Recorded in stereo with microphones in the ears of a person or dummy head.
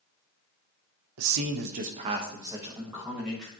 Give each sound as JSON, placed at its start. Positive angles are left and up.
{"t": 1.2, "sound": "a man speaking", "side_deg": -80, "distance_m": 0.8}